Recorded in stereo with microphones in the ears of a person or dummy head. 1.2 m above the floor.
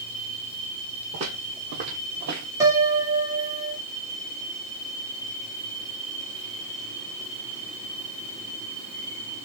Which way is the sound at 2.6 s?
15° right (ahead or behind).